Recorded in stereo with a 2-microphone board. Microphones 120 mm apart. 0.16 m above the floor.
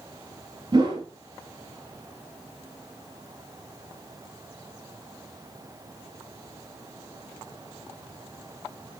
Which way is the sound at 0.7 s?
35° right (ahead or behind).